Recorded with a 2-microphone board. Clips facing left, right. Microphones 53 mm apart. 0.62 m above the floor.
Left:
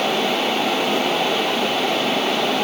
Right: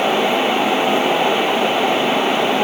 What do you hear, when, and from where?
Only background noise.